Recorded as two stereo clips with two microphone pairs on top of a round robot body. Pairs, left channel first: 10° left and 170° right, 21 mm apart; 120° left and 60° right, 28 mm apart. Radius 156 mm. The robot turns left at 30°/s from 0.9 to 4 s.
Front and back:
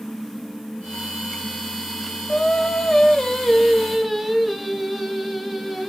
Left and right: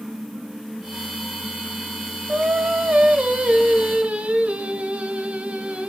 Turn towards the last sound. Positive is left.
turn(degrees=-90)